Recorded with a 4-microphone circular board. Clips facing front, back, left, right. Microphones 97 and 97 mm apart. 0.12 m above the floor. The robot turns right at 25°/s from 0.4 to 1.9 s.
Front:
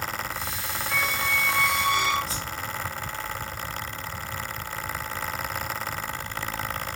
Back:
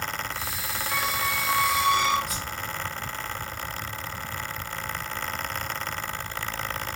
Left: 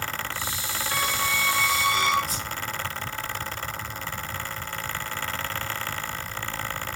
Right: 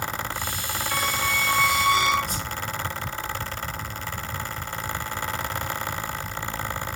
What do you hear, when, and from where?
0.9 s a squeak: 90° left, 1.2 m; by 2.2 s 115° left, 1.2 m
2.3 s a whoosh: 60° right, 0.9 m